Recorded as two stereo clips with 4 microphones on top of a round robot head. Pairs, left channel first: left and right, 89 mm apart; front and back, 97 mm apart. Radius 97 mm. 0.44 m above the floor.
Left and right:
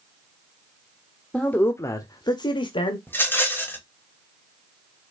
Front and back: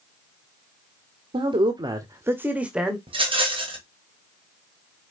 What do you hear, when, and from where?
1.3 s a man speaking: 165° left, 1.3 m; by 3.0 s 95° left, 1.8 m
3.1 s a rattle: 155° left, 3 m